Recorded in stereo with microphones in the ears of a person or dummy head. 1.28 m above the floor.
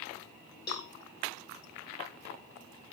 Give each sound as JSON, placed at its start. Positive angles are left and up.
{"t": 0.7, "sound": "a cowbell", "side_deg": 25, "distance_m": 0.9}